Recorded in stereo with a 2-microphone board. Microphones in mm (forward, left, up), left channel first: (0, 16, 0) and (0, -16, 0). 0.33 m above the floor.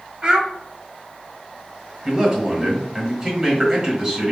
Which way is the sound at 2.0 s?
20° right (ahead or behind).